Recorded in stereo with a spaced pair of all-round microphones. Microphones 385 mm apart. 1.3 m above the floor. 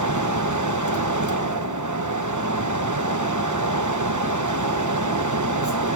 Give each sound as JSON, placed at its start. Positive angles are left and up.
{"t": 0.0, "sound": "a fan", "side_deg": -50, "distance_m": 1.1}